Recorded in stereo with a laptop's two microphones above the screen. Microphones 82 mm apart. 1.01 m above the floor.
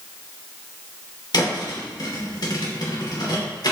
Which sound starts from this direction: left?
A thud, at 1.3 s.